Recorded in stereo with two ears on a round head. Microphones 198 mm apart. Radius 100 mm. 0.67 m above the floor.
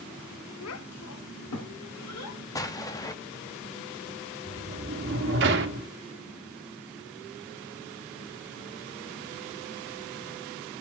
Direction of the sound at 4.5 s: 55° right (ahead or behind).